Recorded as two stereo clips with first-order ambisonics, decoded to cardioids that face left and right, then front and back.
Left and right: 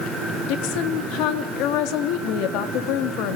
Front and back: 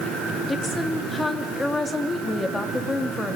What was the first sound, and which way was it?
A woman speaking, 80° left.